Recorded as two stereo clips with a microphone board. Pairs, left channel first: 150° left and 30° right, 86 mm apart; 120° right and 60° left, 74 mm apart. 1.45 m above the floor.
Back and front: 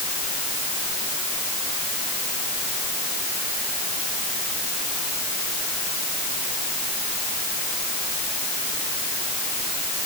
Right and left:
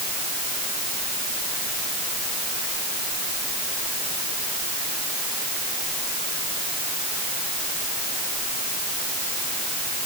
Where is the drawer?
I don't hear a drawer.